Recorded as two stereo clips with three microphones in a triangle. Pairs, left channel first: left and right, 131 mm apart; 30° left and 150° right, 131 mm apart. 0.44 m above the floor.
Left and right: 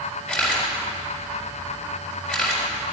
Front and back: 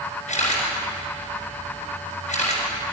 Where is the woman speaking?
No woman speaking in this recording.